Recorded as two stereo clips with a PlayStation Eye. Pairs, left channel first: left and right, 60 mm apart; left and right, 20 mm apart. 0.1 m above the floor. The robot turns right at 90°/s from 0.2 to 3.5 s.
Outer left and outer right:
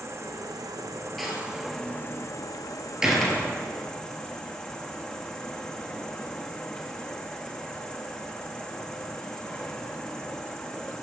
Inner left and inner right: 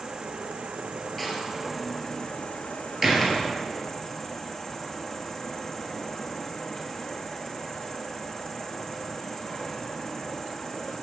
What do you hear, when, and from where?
0.0 s an insect: 135° right, 1.1 m; by 11.0 s 160° left, 1.1 m
1.2 s a door slam: centre (ahead or behind), 1.6 m; by 3.5 s 15° left (ahead or behind), 1.6 m